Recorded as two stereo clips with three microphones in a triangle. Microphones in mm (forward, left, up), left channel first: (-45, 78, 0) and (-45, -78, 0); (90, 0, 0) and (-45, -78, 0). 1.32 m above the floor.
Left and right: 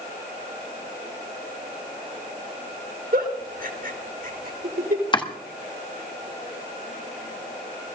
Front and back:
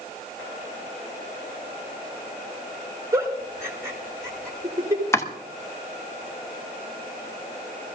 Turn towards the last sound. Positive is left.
turn(degrees=85)